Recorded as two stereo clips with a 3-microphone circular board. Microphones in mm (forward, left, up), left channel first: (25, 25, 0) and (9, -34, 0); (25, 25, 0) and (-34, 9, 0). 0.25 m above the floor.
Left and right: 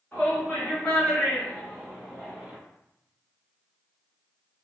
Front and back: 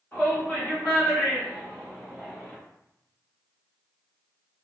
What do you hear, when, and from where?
0.1 s a shout: 45° left, 1.6 m; by 2.5 s 55° right, 1.5 m